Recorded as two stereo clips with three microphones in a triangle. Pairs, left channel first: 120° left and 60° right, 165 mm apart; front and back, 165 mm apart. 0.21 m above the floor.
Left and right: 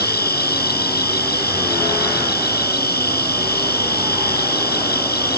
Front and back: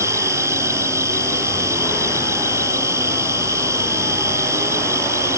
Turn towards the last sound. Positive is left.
turn(degrees=105)